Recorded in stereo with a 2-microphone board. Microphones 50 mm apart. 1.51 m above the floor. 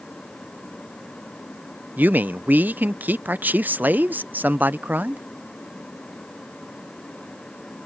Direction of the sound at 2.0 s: 35° right (ahead or behind).